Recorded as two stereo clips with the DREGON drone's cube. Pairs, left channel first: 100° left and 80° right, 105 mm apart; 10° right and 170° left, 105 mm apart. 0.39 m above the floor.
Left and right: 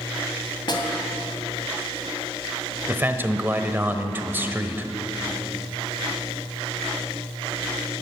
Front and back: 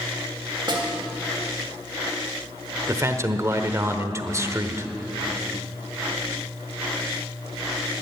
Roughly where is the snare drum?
Behind left.